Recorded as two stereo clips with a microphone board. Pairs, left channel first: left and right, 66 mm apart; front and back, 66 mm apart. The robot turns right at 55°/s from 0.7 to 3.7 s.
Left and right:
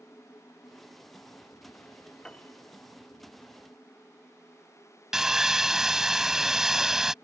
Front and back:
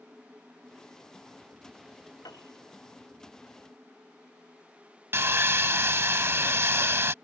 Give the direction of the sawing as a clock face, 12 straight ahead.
6 o'clock.